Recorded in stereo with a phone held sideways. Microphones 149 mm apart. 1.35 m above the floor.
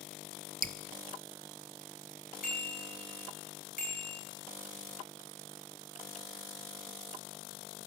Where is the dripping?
70° right (ahead or behind), 0.5 m.